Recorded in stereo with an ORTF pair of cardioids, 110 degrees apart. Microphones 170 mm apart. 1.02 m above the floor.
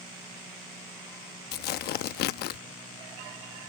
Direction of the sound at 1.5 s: 70° left.